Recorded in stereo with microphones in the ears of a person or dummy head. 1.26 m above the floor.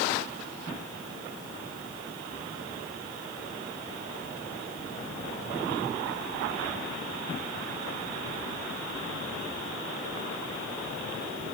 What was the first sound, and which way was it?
Only background noise.